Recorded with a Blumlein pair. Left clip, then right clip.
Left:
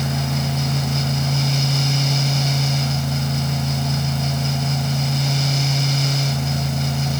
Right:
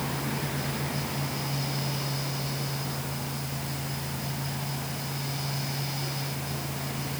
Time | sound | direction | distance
0.0 | a fan | 35° left | ?